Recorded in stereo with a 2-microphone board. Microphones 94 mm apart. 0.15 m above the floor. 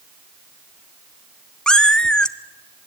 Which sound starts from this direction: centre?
A cat meowing, at 1.7 s.